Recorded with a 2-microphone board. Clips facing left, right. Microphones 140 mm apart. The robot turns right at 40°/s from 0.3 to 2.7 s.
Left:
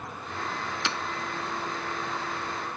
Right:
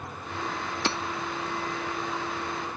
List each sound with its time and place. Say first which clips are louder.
0.8 s hammering: right 5 dB; 40° right (ahead or behind); by 1.0 s 35° right (ahead or behind)